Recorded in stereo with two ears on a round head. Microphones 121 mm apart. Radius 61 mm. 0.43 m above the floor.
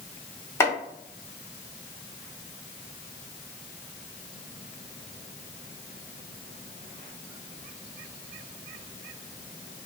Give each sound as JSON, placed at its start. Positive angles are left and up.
{"t": 0.6, "sound": "chopping", "side_deg": 20, "distance_m": 0.8}